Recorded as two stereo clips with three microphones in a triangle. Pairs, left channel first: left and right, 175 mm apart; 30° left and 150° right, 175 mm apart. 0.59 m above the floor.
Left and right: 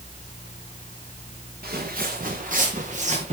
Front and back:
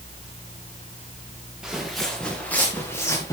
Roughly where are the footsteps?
Ahead right.